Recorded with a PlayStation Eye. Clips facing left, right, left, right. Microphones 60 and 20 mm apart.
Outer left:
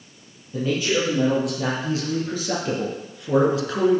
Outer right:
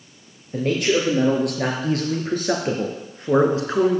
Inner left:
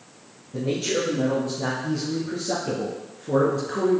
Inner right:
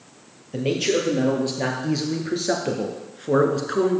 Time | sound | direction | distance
0.5 | a man speaking | 65° right (ahead or behind) | 4 m